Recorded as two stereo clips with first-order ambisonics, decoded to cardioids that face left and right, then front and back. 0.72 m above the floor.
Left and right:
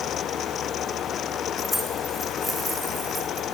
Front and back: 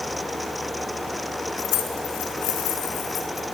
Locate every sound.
1.6 s keys jangling: 5° left, 6 m; by 3.5 s 20° right, 6.5 m